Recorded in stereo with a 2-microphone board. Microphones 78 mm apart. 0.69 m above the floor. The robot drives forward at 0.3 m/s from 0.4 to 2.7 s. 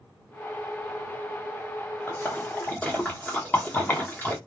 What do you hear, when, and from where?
2.1 s a splash: 25° left (ahead or behind), 0.9 m